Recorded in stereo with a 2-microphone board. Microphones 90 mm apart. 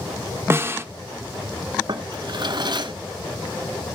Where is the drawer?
55° right (ahead or behind), 1.4 m.